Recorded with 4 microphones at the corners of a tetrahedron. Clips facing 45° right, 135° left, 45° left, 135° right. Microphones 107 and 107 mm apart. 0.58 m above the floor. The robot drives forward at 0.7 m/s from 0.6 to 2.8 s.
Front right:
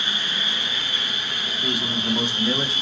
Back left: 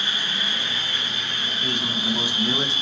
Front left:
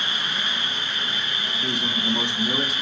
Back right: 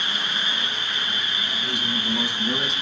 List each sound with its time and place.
0.0 s an insect: 20° left, 1.7 m; by 2.8 s 130° left, 1.3 m
1.6 s a man speaking: 30° left, 0.9 m; by 2.7 s 135° left, 0.7 m